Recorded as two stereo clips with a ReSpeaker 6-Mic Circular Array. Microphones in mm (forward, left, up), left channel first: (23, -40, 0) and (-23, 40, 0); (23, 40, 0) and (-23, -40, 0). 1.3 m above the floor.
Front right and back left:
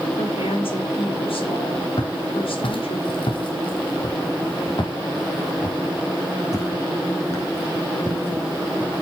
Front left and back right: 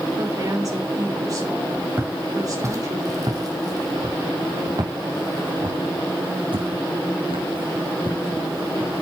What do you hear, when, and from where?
0.2 s a woman speaking: 70° right, 5 m
2.0 s footsteps: 55° right, 4 m; by 9.0 s 130° right, 4.5 m